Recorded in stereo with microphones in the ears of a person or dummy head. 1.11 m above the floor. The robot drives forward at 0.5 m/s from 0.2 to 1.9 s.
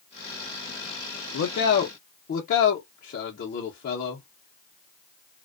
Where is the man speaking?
70° left (ahead or behind), 0.5 m; by 4.3 s 45° left (ahead or behind), 0.6 m.